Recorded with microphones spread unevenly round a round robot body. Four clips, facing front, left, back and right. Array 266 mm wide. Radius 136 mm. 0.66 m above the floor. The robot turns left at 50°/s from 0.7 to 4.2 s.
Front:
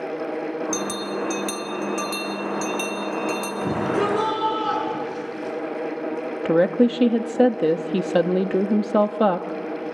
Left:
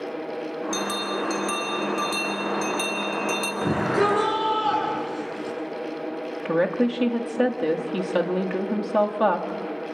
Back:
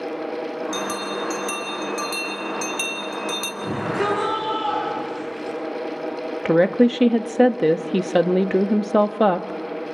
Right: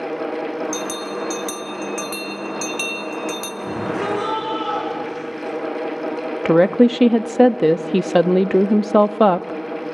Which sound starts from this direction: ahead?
A bell, at 0.7 s.